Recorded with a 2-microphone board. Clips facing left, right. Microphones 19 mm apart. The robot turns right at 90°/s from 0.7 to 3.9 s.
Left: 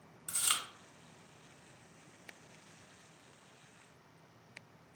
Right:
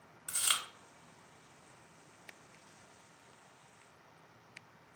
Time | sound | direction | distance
0.3 | chewing | 15° right (ahead or behind) | 0.8 m